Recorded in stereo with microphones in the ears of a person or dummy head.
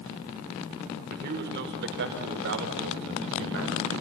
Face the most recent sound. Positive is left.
turn(degrees=-65)  # may be behind; listen again after turning